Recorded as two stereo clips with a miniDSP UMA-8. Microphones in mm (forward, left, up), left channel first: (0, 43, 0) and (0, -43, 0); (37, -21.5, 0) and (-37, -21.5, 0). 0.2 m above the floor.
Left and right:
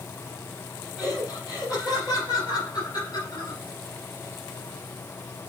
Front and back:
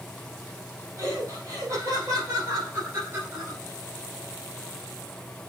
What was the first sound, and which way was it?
Laughter, 135° left.